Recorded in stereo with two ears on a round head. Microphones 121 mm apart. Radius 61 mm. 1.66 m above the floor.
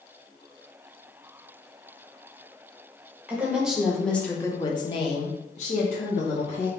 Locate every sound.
3.3 s a woman speaking: 10° right (ahead or behind), 1.2 m; by 6.7 s 55° left (ahead or behind), 1.4 m